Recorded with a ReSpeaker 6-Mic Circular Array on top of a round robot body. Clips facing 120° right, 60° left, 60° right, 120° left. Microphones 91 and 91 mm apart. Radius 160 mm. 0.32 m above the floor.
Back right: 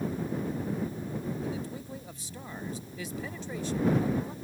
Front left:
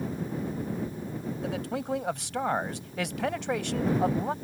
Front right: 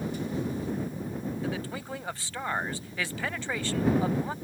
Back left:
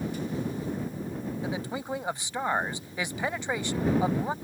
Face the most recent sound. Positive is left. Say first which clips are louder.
# front left 5 dB, back left 1 dB
turn(degrees=50)